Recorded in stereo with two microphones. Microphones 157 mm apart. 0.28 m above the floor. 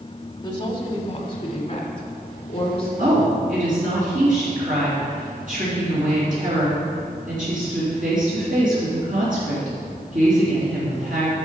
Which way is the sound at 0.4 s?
25° left (ahead or behind).